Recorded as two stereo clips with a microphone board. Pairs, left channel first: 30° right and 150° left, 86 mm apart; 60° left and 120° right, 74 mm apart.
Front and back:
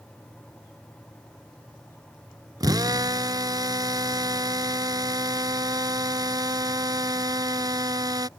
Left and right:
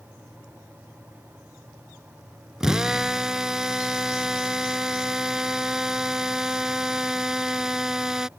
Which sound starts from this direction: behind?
A drill, at 2.6 s.